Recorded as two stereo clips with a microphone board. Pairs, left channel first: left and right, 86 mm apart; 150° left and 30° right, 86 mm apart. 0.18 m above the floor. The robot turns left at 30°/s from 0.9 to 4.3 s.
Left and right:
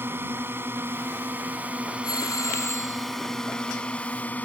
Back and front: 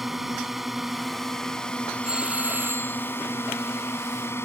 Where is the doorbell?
50° left; by 3.1 s 20° left.